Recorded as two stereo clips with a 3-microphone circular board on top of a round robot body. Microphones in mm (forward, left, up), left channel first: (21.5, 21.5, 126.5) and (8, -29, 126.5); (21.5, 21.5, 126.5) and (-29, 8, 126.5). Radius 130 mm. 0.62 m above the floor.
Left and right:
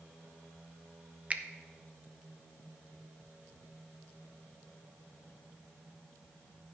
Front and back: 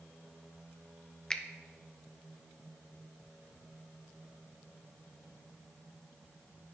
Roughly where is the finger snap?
Ahead right.